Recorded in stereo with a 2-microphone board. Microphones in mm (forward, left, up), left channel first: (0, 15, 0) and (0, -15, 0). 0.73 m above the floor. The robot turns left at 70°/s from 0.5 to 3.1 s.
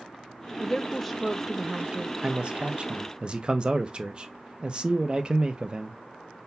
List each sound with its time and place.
0.6 s a woman speaking: 40° left, 0.6 m; by 2.1 s 65° right, 0.6 m
2.2 s a man speaking: 60° right, 0.5 m; by 6.0 s 120° right, 0.5 m